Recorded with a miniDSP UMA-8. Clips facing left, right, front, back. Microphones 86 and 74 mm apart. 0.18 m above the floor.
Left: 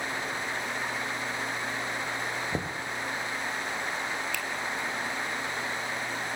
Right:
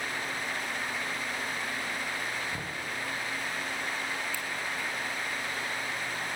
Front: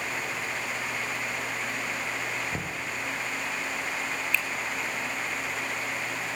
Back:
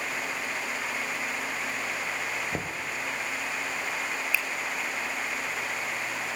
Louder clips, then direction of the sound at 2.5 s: Left 5 dB, back 1 dB; 115° left.